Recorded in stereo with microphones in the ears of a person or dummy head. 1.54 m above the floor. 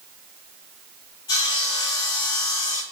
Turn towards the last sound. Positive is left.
turn(degrees=25)  # may be behind; listen again after turning